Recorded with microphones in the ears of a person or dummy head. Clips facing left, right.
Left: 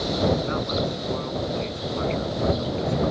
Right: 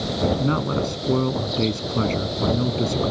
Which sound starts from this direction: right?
A man speaking, at 0.4 s.